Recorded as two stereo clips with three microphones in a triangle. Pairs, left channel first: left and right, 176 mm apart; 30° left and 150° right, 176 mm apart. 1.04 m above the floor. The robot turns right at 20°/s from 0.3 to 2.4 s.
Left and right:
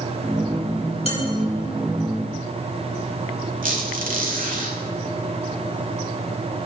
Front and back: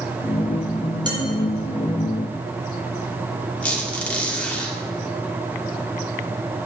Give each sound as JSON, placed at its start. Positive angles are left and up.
{"t": 1.1, "sound": "dishes clattering", "azimuth_deg": 145, "distance_m": 2.0}
{"t": 3.6, "sound": "a squeak", "azimuth_deg": -55, "distance_m": 1.8}